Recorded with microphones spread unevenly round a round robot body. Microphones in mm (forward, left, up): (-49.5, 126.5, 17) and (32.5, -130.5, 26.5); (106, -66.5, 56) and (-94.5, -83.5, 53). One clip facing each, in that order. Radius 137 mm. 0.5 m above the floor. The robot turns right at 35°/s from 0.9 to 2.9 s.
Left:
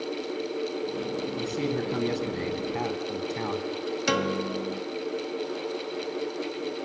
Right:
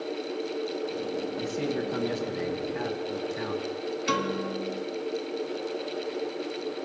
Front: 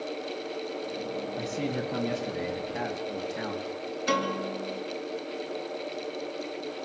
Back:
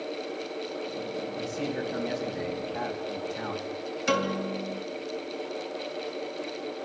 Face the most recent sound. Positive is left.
turn(degrees=115)